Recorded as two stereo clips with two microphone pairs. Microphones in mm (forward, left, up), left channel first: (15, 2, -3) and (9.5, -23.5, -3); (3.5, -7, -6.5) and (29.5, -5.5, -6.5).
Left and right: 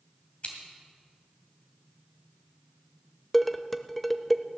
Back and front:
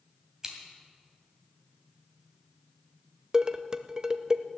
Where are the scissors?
65° left, 2.5 m.